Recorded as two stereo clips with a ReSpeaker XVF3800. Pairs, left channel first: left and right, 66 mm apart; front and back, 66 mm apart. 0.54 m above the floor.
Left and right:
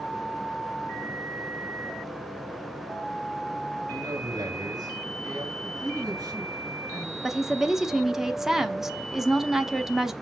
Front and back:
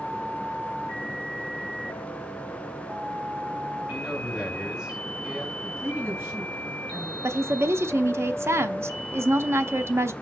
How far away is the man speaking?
About 2.5 m.